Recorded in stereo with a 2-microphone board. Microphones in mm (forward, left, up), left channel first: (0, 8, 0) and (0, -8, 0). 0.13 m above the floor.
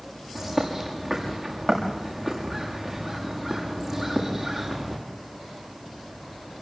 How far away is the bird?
About 7.5 m.